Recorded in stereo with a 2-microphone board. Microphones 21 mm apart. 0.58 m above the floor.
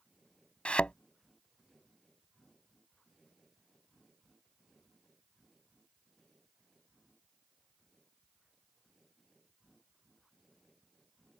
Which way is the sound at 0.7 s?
80° left.